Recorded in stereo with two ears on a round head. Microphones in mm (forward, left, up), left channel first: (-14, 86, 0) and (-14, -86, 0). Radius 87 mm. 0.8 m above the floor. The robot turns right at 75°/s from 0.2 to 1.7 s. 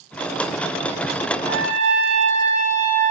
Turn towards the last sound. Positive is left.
turn(degrees=-80)